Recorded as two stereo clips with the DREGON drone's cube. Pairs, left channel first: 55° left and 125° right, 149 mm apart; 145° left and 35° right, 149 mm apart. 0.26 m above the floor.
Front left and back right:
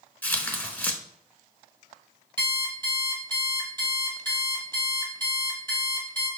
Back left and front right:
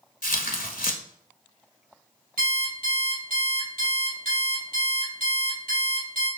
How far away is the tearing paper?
About 0.8 m.